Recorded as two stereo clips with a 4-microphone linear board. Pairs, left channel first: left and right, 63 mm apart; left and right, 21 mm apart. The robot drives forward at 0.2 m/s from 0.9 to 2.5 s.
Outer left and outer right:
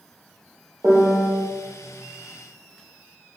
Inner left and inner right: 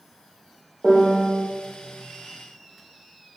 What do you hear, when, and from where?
0.8 s a piano: 30° right (ahead or behind), 0.6 m